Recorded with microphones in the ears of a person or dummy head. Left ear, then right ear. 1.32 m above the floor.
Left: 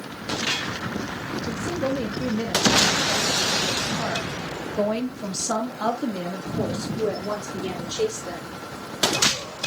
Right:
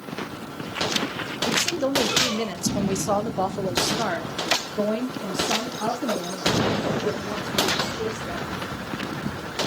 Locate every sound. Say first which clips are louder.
1.5 s a woman speaking: right 4 dB; 85° right, 1.8 m; by 8.6 s 45° left (ahead or behind), 3.5 m